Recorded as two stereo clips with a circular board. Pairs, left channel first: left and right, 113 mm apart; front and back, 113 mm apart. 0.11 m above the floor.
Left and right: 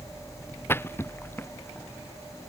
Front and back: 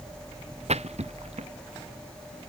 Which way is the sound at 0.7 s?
160° left.